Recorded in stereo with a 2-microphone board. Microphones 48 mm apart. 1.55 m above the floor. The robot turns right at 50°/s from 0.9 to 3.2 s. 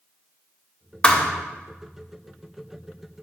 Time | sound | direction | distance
1.0 | a thud | 20° left (ahead or behind) | 0.8 m